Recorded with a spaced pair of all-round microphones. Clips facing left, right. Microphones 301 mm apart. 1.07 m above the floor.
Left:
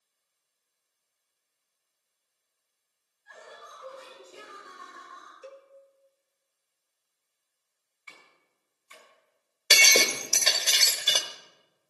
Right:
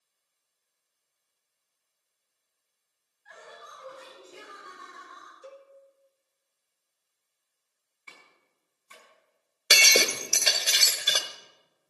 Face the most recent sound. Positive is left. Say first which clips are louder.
# even
turn(degrees=-10)  # may be behind; listen again after turning